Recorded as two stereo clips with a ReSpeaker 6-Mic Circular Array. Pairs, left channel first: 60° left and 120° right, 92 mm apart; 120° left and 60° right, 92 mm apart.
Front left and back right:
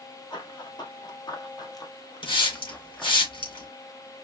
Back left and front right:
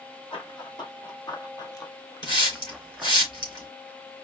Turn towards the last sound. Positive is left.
turn(degrees=85)